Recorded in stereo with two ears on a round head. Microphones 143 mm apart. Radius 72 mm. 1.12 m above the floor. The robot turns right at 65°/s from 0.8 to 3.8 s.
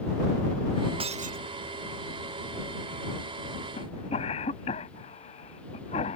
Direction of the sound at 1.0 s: 35° right (ahead or behind).